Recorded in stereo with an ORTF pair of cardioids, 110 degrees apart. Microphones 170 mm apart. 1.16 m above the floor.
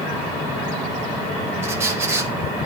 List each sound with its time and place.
1.6 s a squeak: 15° right, 1.1 m